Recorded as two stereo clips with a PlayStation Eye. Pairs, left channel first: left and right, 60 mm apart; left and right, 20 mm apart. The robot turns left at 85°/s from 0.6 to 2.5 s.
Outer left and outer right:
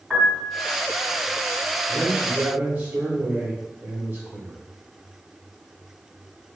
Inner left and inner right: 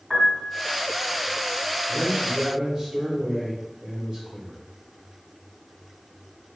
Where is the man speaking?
Straight ahead, 1.4 m; by 4.6 s 50° right, 1.4 m.